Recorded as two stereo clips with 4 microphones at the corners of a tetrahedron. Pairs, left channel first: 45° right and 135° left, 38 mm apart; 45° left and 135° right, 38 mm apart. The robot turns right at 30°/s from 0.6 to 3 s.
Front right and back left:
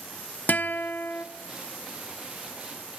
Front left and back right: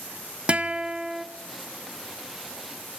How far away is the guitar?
About 0.6 m.